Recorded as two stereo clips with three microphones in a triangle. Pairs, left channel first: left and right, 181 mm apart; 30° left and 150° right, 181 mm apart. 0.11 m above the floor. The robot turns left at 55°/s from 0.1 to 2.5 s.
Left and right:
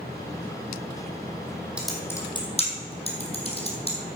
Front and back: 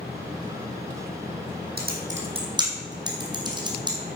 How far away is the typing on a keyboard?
About 2 m.